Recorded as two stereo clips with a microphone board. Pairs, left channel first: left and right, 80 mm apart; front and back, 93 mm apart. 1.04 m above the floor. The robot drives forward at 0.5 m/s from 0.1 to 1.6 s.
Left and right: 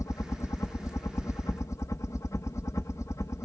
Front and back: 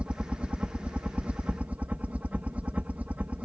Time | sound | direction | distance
0.0 | a helicopter | 110° left | ?